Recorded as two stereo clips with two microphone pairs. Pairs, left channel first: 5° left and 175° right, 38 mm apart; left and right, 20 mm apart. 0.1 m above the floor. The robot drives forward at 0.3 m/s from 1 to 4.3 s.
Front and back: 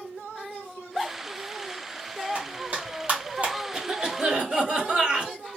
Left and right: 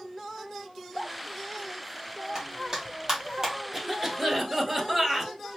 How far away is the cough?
About 1.2 m.